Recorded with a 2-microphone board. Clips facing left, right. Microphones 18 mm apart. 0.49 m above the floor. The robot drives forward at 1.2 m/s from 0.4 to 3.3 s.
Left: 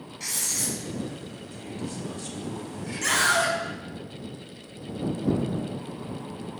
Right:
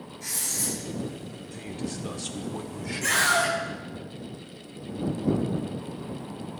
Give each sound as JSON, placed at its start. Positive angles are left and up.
{"t": 0.2, "sound": "writing", "side_deg": 50, "distance_m": 4.0}
{"t": 1.5, "sound": "a man speaking", "side_deg": -25, "distance_m": 1.3}
{"t": 3.0, "sound": "a scream", "side_deg": 25, "distance_m": 4.5}